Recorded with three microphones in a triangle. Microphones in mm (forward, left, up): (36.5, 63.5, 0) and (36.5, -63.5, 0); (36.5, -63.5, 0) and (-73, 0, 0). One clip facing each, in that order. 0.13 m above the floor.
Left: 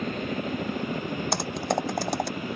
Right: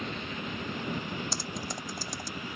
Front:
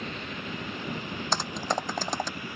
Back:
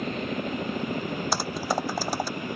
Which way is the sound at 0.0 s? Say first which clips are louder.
Left 7 dB, back 8 dB; 115° left.